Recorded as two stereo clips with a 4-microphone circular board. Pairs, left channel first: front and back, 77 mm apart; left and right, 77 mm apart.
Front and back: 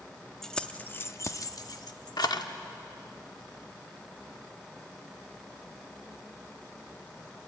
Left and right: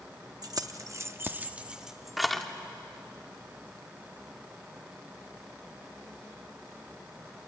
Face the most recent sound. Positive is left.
turn(degrees=5)